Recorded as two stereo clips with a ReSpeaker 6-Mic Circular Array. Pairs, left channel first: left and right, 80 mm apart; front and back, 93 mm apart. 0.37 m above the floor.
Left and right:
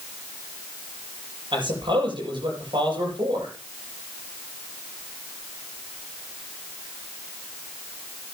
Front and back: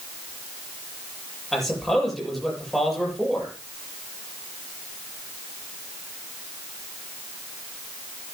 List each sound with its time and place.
1.5 s a man speaking: 90° right, 8 m